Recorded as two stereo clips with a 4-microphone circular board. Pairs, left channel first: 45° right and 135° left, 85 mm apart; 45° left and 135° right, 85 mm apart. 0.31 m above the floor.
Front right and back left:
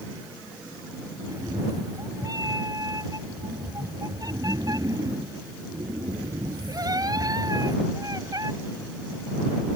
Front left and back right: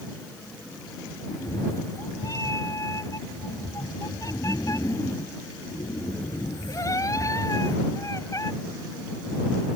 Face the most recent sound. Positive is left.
turn(degrees=90)